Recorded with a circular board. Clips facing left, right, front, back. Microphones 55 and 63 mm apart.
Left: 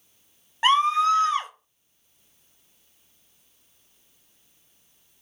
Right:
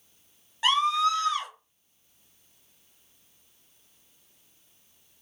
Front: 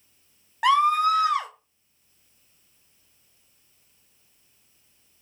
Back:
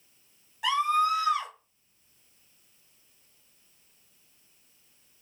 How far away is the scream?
About 0.7 m.